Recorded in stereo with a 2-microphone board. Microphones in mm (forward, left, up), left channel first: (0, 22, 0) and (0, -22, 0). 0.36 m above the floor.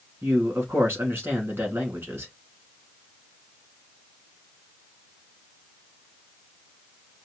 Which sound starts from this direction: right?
A man speaking, at 0.2 s.